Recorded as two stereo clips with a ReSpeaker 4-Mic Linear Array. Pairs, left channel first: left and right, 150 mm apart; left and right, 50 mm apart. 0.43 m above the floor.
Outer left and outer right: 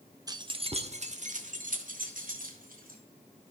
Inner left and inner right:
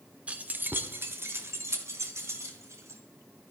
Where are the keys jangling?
25° right (ahead or behind), 0.6 m; by 3.0 s 70° right (ahead or behind), 1.8 m.